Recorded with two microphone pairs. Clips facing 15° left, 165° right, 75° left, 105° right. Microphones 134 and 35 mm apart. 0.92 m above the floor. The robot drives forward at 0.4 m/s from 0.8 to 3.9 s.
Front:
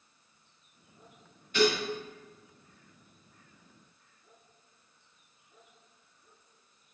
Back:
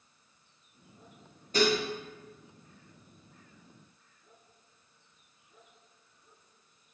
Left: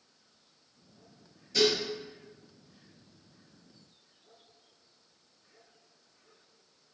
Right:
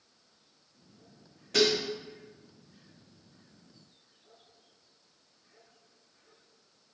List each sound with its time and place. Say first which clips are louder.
1.5 s dishes clattering: even, right 1 dB; 110° right, 0.8 m; by 1.8 s 120° right, 0.9 m